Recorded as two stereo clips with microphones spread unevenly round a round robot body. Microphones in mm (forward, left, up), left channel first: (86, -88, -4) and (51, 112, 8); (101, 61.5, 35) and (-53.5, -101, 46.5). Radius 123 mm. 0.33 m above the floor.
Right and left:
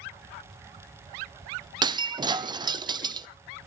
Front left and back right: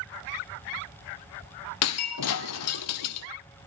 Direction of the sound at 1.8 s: 30° left.